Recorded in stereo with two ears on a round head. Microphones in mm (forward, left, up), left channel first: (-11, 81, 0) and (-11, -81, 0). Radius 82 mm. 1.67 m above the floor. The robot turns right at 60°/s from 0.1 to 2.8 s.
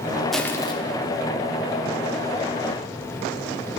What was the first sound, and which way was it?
Crushing, centre (ahead or behind).